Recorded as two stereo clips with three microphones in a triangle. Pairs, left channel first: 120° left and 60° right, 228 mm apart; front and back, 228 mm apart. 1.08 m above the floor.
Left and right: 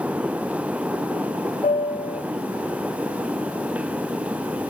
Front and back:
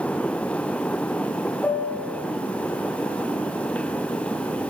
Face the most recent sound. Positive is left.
turn(degrees=80)